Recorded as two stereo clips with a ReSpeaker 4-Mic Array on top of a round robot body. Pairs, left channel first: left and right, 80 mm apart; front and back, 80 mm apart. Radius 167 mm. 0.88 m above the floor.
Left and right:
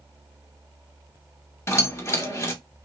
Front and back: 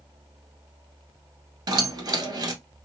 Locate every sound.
1.7 s keys jangling: 145° left, 1.3 m